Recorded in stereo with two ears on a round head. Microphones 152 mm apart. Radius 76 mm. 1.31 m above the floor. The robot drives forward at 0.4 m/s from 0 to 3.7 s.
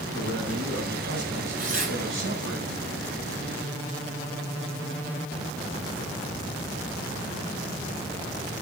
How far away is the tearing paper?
About 3 m.